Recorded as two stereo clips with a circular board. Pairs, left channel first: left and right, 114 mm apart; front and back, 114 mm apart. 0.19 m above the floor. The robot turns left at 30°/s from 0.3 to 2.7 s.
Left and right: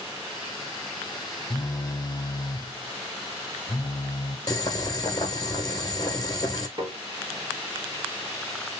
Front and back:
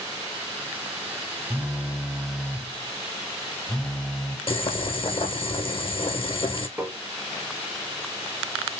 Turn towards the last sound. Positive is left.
turn(degrees=-110)